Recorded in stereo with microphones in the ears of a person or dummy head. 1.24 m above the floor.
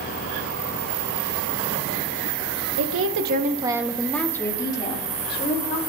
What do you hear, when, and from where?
2.8 s a woman speaking: 75° right (ahead or behind), 1.5 m; by 5.8 s 35° left (ahead or behind), 4 m